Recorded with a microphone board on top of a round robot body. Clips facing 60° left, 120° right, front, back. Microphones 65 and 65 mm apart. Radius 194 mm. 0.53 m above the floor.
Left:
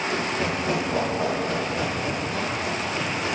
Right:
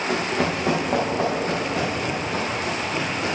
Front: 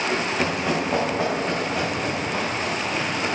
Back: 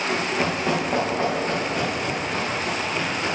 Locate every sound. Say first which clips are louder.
0.1 s running footsteps: right 5 dB, even; 90° right, 3 m; by 3.4 s 70° right, 5 m